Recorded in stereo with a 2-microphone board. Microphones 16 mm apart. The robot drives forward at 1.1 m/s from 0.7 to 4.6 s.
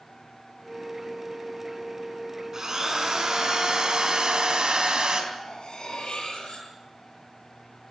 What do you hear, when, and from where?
2.5 s a drill: 45° right (ahead or behind), 4.5 m; by 5.2 s 75° right (ahead or behind), 3.5 m
5.3 s cutlery clinking: 60° left (ahead or behind), 8 m